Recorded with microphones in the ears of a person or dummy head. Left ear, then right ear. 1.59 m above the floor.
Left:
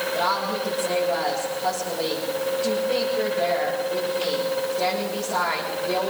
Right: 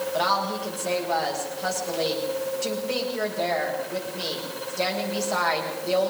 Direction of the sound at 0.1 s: 65° right (ahead or behind).